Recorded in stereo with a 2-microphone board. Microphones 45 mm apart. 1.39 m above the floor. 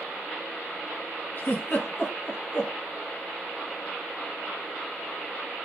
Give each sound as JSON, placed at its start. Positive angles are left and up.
{"t": 1.4, "sound": "a giggle", "side_deg": 35, "distance_m": 0.6}